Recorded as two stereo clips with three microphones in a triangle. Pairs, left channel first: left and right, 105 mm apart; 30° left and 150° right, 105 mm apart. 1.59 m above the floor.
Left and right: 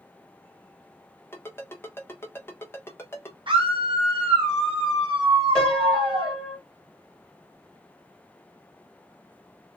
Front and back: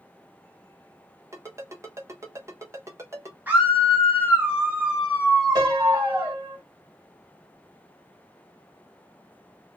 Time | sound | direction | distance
1.3 | a ringtone | 155° left | 1.1 m
3.5 | a scream | 80° right | 0.7 m
5.5 | a piano | 175° left | 2.5 m